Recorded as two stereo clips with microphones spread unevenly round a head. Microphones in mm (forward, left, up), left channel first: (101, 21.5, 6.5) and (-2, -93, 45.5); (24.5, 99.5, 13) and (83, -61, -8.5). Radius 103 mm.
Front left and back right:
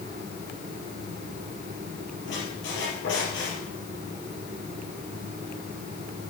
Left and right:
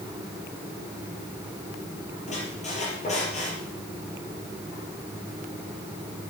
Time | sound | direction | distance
2.3 | a squeak | 60° left | 4.5 m